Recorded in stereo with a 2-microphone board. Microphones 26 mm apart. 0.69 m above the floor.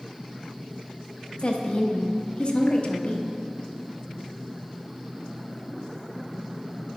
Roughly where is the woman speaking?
Left.